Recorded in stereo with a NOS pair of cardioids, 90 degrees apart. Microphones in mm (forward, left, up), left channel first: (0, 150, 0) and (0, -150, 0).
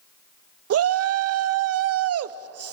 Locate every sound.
0.7 s a shout: 55° right, 0.7 m